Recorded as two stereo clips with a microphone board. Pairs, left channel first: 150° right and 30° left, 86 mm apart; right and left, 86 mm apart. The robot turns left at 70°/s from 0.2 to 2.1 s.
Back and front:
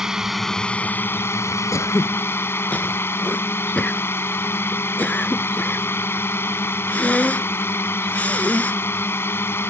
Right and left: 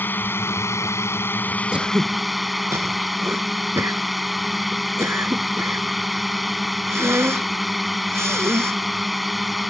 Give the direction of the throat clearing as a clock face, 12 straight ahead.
6 o'clock.